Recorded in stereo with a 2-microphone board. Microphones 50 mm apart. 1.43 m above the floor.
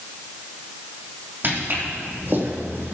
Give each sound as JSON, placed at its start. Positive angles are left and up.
{"t": 1.4, "sound": "footsteps", "side_deg": -45, "distance_m": 4.5}